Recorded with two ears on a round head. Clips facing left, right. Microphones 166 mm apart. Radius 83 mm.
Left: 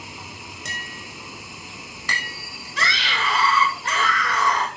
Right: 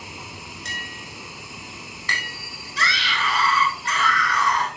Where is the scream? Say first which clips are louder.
Left 1 dB; 50° left (ahead or behind), 2.5 m.